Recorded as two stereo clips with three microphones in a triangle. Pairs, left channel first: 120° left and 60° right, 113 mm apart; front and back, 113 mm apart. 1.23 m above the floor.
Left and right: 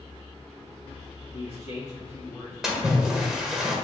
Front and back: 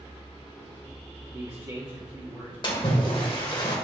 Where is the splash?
25° left, 1.3 m.